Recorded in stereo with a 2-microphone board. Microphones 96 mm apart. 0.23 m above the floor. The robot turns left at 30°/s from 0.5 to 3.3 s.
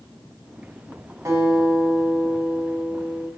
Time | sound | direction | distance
1.2 | a guitar | 65° right | 2 m